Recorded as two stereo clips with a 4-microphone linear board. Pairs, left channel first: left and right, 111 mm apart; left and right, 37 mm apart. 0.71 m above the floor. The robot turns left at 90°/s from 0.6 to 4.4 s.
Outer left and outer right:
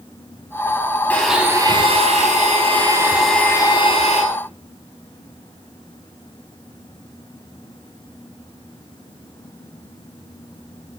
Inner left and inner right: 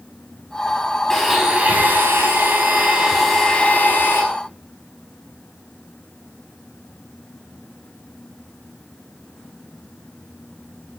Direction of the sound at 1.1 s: 15° left.